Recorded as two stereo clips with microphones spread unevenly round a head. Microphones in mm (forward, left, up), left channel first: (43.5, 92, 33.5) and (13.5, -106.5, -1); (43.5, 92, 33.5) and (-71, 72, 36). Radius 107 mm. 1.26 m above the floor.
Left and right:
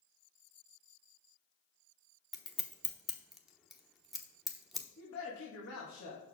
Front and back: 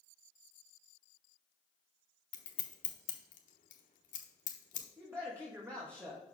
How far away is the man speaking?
About 1.6 m.